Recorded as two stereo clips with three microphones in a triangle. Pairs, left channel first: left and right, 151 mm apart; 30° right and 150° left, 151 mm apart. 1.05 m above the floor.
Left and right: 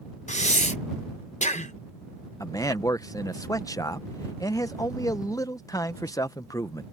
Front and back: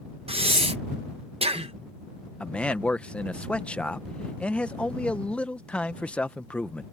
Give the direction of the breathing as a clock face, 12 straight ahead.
8 o'clock.